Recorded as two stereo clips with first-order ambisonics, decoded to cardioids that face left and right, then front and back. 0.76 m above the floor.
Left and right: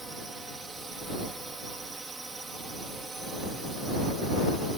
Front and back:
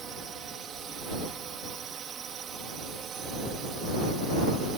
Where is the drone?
155° right.